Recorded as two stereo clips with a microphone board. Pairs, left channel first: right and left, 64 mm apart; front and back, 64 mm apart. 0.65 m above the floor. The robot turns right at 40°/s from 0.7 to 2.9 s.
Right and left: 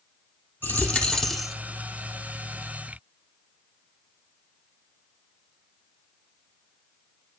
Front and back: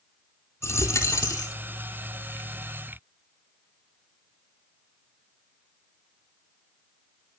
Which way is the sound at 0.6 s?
35° right.